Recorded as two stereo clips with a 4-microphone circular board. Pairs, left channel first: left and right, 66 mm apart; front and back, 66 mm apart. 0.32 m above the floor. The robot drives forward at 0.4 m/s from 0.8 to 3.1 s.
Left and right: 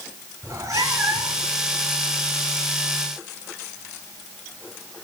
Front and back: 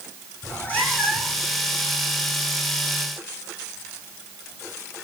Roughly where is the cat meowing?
Ahead right.